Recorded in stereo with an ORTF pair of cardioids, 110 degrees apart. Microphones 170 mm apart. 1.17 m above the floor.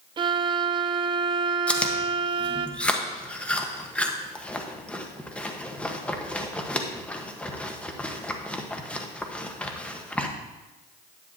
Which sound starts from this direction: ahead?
Chewing, at 1.7 s.